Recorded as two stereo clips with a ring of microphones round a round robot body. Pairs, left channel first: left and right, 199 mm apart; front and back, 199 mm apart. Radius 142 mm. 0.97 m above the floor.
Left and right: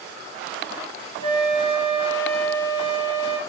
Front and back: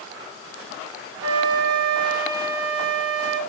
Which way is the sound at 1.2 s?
110° left.